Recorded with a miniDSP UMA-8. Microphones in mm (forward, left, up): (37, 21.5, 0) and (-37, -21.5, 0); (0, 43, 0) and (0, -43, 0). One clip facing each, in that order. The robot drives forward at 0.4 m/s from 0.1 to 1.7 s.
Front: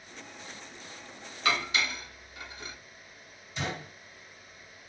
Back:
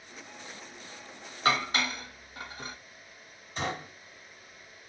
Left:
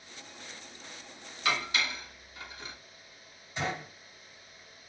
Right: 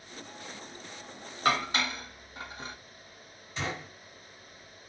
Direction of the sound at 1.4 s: 110° right.